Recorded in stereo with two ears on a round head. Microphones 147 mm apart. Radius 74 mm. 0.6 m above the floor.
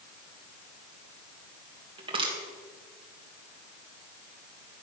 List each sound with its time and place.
2.0 s crushing: 35° right (ahead or behind), 3 m